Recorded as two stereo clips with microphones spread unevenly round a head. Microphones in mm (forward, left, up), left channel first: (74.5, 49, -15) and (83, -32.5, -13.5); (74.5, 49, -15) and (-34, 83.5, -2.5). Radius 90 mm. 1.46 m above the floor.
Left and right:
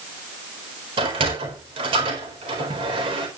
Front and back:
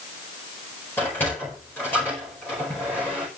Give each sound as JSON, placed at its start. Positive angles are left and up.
{"t": 1.0, "sound": "a sliding door", "azimuth_deg": -100, "distance_m": 4.5}